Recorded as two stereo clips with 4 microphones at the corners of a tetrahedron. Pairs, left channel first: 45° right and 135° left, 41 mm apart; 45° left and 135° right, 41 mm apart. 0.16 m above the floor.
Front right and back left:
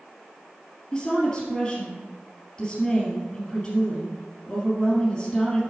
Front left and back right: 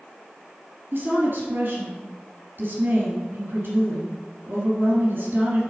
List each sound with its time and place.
0.9 s a woman speaking: 115° right, 3 m